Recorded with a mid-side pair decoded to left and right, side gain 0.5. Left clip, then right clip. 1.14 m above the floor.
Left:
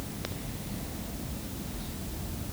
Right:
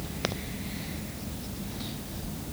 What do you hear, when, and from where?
Only background noise.